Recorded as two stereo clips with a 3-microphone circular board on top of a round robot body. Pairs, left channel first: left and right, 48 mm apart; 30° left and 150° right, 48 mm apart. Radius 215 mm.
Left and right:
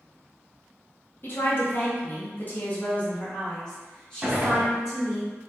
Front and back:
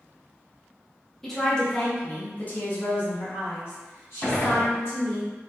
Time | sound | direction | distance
1.2 | a woman speaking | 110° left | 1.3 m
4.2 | a gunshot | 15° right | 1.7 m